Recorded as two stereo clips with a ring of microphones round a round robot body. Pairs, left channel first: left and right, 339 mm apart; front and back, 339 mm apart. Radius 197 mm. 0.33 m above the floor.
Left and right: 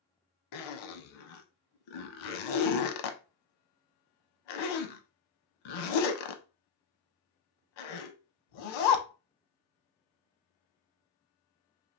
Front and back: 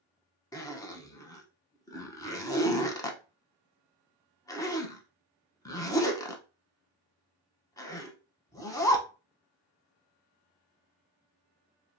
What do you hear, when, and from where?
0.5 s a zipper: 80° left, 0.5 m